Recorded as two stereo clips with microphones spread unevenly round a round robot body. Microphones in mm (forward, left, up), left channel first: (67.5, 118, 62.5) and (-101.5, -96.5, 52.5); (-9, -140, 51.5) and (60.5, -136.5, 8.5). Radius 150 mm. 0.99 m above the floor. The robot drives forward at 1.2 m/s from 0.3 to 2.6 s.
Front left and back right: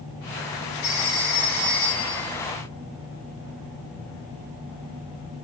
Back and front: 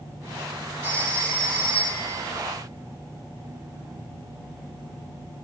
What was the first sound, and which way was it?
A phone ringing, 50° left.